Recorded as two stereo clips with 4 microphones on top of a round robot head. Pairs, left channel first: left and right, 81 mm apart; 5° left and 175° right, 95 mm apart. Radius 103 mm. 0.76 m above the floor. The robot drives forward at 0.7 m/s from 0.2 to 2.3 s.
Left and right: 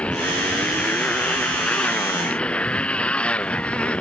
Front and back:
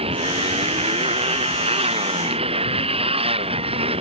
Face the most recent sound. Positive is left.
turn(degrees=170)